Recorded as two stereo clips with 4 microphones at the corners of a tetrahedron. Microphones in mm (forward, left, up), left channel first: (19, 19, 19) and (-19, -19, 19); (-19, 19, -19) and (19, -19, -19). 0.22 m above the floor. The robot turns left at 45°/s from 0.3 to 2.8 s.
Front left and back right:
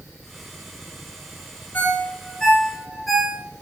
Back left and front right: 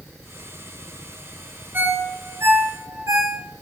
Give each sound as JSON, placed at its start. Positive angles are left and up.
{"t": 1.7, "sound": "a ringtone", "azimuth_deg": 0, "distance_m": 2.5}